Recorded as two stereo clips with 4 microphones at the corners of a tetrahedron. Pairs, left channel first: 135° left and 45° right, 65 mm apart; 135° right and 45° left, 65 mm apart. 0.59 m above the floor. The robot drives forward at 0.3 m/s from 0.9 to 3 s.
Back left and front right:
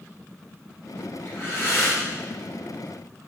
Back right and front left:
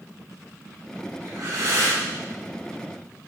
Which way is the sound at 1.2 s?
75° left.